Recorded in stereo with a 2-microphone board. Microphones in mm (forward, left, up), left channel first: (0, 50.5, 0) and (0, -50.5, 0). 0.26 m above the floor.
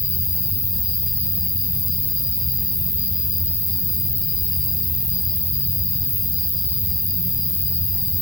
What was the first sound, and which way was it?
An insect, 70° left (ahead or behind).